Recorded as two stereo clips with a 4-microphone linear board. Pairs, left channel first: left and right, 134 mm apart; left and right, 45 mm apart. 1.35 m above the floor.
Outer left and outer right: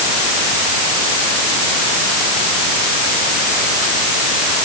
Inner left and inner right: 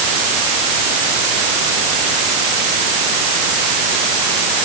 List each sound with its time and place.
Only background noise.